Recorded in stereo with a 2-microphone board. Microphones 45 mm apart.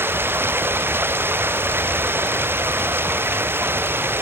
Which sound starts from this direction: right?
Running water, at 0.0 s.